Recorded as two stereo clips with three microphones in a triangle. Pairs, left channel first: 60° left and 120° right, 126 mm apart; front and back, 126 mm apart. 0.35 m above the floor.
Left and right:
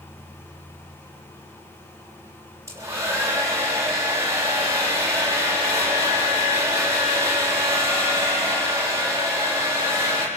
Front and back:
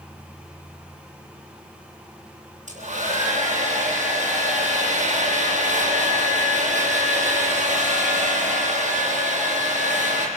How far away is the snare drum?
No snare drum in this recording.